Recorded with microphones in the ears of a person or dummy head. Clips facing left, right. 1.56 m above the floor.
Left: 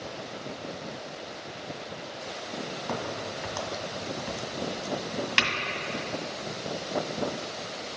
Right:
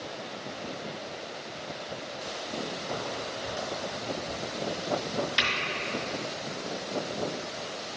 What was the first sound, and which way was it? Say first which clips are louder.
A crack: left 1 dB; 75° left (ahead or behind).